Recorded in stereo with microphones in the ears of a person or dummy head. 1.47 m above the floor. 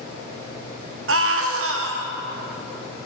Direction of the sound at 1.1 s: 65° right (ahead or behind).